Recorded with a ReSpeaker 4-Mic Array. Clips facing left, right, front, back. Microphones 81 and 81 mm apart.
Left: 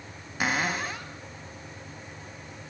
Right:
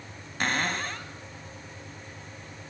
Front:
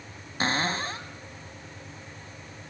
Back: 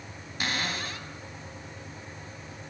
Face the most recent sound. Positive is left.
turn(degrees=10)